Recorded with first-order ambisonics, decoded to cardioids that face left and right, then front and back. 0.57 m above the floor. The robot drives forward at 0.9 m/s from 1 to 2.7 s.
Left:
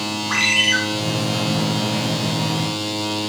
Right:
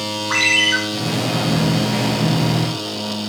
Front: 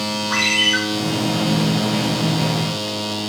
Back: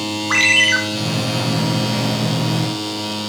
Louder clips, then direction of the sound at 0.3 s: Right 2 dB, back 4 dB; 170° right.